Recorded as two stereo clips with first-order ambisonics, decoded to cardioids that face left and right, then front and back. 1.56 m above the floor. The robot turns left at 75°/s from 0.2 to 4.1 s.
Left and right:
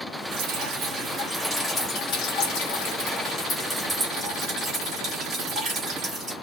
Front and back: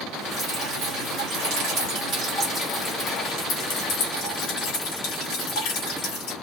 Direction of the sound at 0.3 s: 95° right.